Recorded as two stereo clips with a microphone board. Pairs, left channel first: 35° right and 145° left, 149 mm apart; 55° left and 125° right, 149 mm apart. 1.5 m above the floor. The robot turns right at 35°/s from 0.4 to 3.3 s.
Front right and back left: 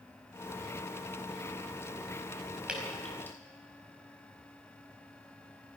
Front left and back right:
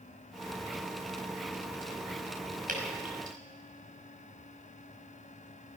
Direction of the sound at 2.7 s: 130° right.